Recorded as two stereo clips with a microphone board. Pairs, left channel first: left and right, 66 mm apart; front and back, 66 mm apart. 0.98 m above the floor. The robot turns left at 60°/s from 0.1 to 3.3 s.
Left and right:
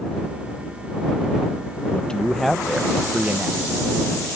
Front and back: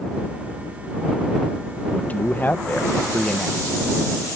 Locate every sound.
1.9 s a man speaking: 40° left; by 3.8 s 45° right